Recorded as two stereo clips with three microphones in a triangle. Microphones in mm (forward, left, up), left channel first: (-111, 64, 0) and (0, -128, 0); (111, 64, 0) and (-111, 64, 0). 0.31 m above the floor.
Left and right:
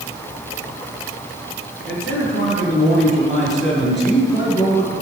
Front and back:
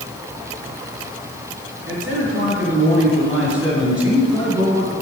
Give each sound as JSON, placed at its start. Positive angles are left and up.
{"t": 1.9, "sound": "a man speaking", "azimuth_deg": 155, "distance_m": 4.0}